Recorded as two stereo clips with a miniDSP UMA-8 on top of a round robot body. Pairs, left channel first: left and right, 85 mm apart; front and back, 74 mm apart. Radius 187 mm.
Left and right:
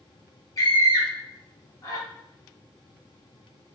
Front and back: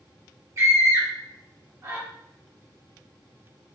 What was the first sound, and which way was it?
A scream, 135° left.